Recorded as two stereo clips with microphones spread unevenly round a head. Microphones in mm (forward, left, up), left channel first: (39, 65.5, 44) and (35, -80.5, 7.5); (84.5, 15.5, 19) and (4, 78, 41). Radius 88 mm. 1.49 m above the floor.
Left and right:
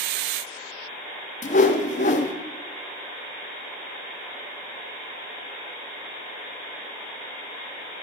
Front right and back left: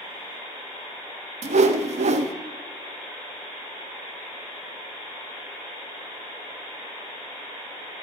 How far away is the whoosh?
About 0.7 m.